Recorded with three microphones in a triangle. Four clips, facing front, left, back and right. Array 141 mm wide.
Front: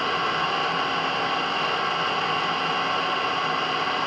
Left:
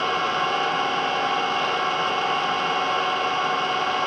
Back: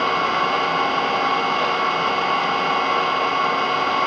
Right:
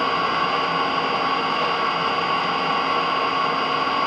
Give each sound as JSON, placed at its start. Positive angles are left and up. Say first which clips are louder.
{"t": 0.0, "sound": "an engine running", "louder": "right 2 dB, back 5 dB", "azimuth_deg": -155, "distance_m": 0.8}